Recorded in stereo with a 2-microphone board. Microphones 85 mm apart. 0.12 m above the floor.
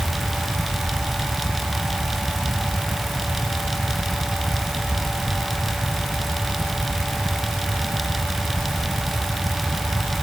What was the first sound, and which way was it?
Only background noise.